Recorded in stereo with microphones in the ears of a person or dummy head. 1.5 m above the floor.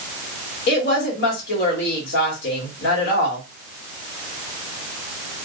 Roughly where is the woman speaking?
Left.